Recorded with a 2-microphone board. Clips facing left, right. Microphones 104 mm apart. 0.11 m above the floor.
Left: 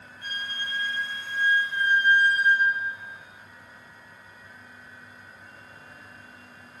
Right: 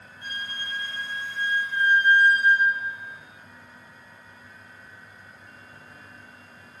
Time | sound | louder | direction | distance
0.2 | a flute | left 1 dB | 30° right (ahead or behind) | 1.5 m